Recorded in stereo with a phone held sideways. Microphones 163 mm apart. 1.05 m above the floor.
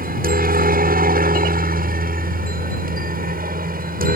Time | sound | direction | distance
0.0 | a helicopter | 60° right (ahead or behind) | ?